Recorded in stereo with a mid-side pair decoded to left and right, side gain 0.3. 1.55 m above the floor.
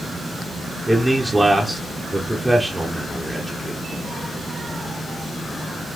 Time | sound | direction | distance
0.9 | a man speaking | 15° right | 0.9 m